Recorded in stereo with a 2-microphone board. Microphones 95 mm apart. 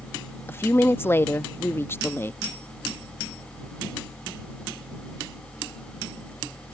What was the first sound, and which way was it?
A woman speaking, 25° left (ahead or behind).